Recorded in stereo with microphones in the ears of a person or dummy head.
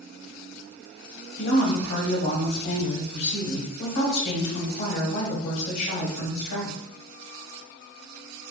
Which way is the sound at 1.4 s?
65° left (ahead or behind).